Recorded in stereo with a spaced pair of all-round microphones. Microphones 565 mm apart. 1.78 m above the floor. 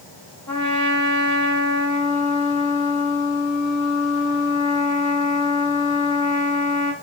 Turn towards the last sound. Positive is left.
turn(degrees=30)  # may be behind; listen again after turning